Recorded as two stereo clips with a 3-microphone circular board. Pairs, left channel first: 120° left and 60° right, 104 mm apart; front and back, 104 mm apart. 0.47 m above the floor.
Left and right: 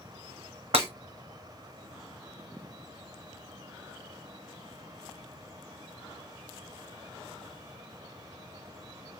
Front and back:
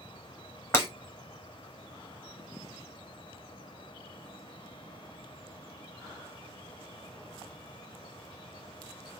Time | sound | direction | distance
0.7 | breaking glass | 65° right | 1.6 m